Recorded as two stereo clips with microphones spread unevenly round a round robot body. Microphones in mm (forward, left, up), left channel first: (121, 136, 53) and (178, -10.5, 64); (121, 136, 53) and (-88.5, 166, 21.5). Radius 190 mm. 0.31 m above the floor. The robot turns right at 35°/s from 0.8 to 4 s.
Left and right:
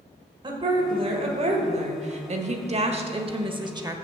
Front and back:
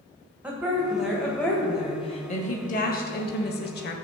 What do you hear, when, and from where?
0.4 s a woman speaking: 120° right, 1.5 m; by 4.0 s 10° right, 1.5 m